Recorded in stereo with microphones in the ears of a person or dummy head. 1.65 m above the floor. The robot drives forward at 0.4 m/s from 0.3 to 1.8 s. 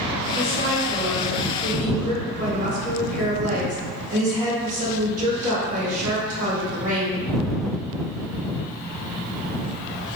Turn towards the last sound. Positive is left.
turn(degrees=-40)  # may be behind; listen again after turning